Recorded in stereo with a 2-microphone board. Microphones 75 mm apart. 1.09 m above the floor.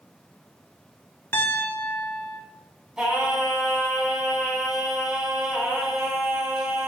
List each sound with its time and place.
1.3 s a piano: 30° left (ahead or behind), 1.5 m
3.0 s singing: 10° right (ahead or behind), 2.5 m